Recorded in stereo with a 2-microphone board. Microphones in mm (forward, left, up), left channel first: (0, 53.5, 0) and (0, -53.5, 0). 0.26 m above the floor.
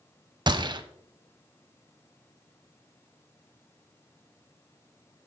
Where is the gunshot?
45° right (ahead or behind), 0.5 m.